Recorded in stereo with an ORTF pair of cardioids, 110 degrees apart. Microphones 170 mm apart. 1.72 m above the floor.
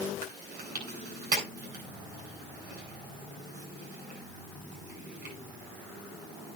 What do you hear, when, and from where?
0.2 s chewing: 70° right, 9 m